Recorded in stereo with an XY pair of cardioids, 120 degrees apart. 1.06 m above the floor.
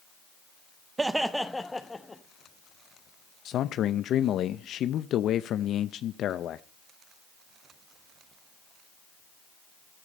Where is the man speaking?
60° left, 0.6 m.